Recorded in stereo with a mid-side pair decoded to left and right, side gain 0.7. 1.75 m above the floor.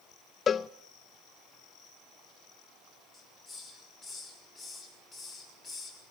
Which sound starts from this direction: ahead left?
A cowbell, at 0.5 s.